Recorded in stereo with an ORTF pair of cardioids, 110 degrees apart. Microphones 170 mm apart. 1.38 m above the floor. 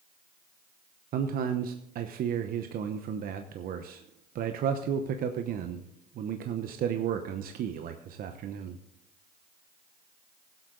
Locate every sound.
1.1 s a man speaking: 60° right, 0.9 m